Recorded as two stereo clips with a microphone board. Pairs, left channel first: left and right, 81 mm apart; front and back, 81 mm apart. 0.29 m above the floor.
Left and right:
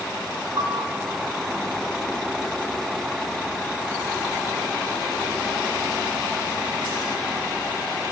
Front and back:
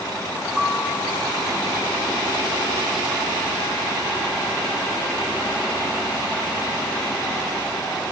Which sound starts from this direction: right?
A piano, at 0.6 s.